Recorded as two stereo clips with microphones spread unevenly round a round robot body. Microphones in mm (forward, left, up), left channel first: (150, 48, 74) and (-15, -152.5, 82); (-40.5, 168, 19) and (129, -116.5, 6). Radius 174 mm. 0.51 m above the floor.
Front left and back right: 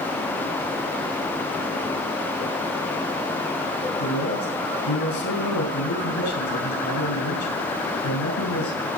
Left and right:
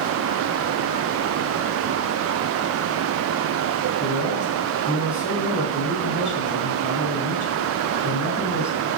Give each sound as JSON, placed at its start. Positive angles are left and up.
{"t": 4.0, "sound": "a man speaking", "azimuth_deg": 55, "distance_m": 6.5}